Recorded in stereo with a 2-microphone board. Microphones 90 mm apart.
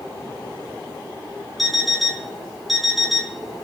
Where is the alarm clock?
Centre (ahead or behind), 0.6 m.